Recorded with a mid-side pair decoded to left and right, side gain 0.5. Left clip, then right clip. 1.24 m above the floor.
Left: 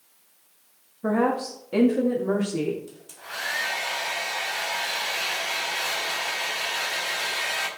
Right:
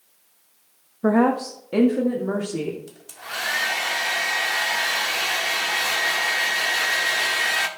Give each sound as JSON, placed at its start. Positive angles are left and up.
{"t": 1.0, "sound": "a woman speaking", "azimuth_deg": -45, "distance_m": 1.3}
{"t": 2.9, "sound": "a hair dryer", "azimuth_deg": -50, "distance_m": 2.0}